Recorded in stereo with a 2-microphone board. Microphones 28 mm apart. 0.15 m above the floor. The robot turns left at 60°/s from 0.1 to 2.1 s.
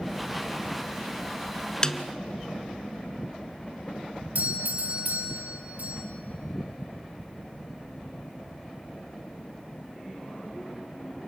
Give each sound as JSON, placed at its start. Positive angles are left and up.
{"t": 1.8, "sound": "a snare drum", "side_deg": 20, "distance_m": 0.9}
{"t": 4.3, "sound": "a doorbell", "side_deg": -55, "distance_m": 5.0}